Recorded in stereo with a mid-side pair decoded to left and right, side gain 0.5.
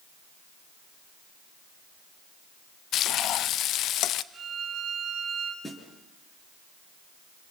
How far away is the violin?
About 6 m.